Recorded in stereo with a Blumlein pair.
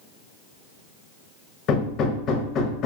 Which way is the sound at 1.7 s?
30° left.